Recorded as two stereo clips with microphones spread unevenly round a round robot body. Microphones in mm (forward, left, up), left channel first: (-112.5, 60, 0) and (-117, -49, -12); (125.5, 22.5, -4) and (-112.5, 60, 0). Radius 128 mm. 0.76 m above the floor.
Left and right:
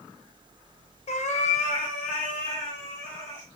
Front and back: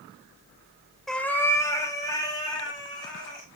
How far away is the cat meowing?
About 0.7 m.